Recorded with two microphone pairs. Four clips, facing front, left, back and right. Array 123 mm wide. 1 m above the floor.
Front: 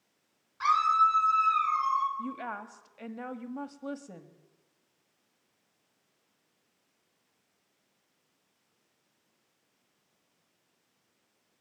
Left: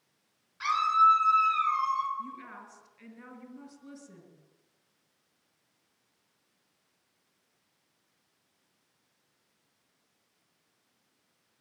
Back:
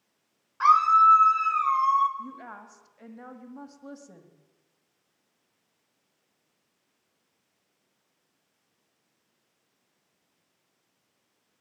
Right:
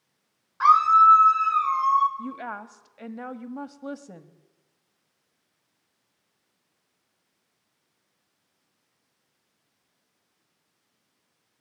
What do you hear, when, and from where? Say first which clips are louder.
0.6 s a scream: right 8 dB, back 6 dB; 125° right, 4.5 m; by 2.1 s 135° right, 4 m
2.2 s a woman speaking: right 7 dB, front 4 dB; 60° right, 1.7 m